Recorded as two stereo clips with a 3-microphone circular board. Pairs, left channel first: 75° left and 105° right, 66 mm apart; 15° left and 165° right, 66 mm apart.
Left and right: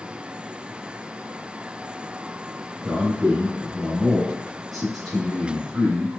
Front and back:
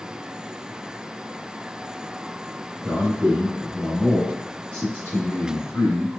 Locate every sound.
2.8 s a man speaking: 175° left, 1.3 m; by 6.1 s 10° right, 1.6 m